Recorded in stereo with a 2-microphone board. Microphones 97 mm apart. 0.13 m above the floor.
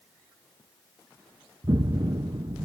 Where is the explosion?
45° right (ahead or behind), 0.5 m.